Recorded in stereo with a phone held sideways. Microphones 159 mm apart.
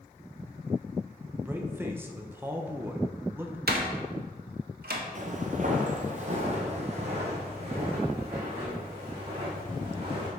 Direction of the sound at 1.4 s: 15° right (ahead or behind).